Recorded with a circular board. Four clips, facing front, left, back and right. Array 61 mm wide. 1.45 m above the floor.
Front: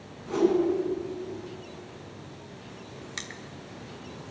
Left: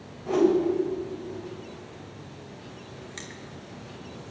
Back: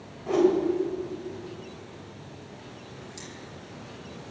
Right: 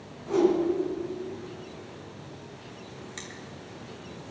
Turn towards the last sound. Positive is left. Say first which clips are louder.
# left 1 dB, front 3 dB
turn(degrees=5)